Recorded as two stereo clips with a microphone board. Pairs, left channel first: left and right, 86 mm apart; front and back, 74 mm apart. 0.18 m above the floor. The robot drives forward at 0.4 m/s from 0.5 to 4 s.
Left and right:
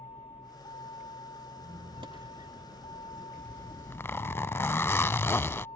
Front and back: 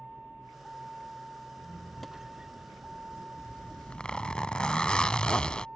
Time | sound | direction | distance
0.0 | a vehicle | 95° left | ?
1.6 | a squeak | 70° right | ?
3.4 | a zipper | 35° left | ?